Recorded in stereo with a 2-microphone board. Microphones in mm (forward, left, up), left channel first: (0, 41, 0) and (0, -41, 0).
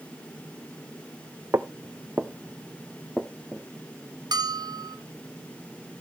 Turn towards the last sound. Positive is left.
turn(degrees=-60)  # may be behind; listen again after turning